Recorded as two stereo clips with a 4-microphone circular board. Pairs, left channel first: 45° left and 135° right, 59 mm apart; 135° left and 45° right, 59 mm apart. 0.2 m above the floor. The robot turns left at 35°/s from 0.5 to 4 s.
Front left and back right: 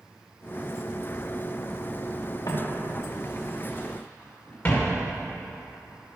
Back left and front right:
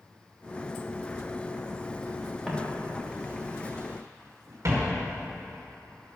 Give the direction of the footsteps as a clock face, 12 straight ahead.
10 o'clock.